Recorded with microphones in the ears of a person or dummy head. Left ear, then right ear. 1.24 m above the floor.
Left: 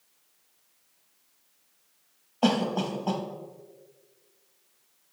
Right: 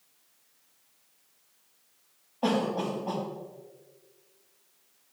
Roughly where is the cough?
Left.